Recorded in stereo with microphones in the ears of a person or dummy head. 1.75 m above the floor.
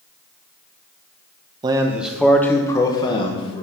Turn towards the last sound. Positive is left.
turn(degrees=35)  # may be behind; listen again after turning